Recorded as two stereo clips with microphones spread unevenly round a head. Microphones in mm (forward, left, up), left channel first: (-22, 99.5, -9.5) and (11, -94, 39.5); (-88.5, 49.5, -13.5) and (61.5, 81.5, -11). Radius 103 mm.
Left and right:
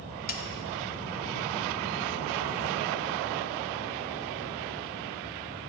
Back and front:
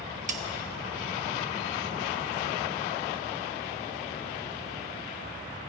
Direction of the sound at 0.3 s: 50° left.